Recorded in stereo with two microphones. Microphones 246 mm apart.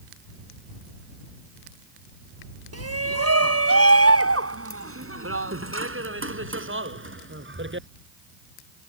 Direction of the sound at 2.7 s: 80° right.